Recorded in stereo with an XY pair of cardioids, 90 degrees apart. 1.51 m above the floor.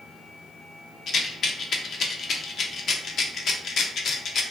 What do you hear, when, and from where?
1.1 s a rattle: 60° left, 0.5 m